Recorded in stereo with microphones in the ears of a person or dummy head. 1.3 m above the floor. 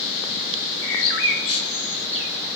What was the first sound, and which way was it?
A bird, 80° left.